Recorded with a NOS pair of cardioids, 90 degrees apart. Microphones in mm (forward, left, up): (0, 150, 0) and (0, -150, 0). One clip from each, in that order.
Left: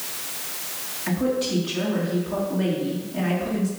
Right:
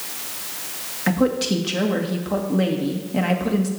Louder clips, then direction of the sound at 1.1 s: Right 4 dB; 55° right.